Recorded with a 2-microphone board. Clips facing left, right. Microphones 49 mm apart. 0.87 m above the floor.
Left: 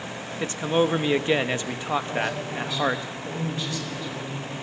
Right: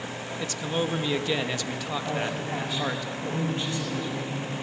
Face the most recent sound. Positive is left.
turn(degrees=-30)  # may be behind; listen again after turning